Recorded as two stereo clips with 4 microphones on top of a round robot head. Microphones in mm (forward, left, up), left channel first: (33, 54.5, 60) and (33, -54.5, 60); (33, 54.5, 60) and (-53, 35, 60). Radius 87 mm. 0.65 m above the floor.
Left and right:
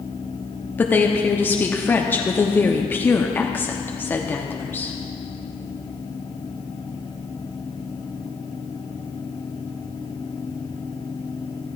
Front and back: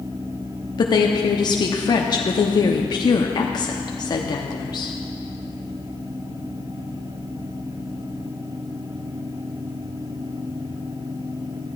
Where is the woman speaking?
20° left, 0.9 m.